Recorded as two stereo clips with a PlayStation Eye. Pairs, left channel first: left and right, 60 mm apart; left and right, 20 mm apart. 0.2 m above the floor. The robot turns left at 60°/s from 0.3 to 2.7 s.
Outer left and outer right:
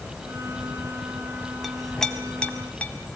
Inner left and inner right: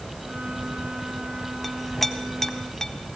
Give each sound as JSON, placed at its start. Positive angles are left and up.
{"t": 1.6, "sound": "a clink", "side_deg": 0, "distance_m": 0.8}